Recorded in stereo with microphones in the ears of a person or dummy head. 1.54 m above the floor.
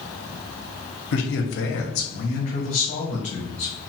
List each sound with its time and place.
1.1 s a man speaking: 70° left (ahead or behind), 0.9 m; by 3.7 s 40° left (ahead or behind), 1.7 m